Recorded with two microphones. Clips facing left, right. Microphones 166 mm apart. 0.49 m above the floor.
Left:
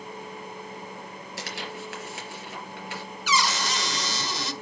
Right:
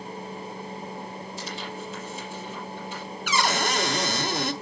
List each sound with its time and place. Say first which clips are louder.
1.4 s tearing paper: left 1 dB; 80° left, 4 m
3.3 s a cupboard door: right 2 dB; 55° right (ahead or behind), 1.2 m